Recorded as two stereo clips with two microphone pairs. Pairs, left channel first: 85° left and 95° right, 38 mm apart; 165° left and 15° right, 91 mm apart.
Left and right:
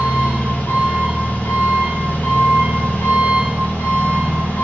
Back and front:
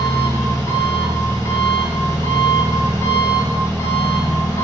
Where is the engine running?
110° left, 2 m.